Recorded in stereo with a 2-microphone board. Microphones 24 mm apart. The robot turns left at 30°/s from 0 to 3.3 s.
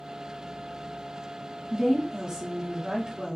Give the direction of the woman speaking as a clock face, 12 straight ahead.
2 o'clock.